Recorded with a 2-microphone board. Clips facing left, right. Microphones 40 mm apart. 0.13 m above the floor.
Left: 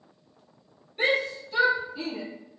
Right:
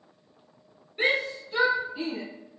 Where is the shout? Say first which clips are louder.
Even; 5° right (ahead or behind), 1.7 m; by 2.2 s 15° right (ahead or behind), 2.5 m.